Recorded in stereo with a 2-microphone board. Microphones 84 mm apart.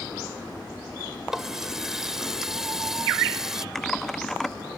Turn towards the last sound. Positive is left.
turn(degrees=5)  # may be behind; listen again after turning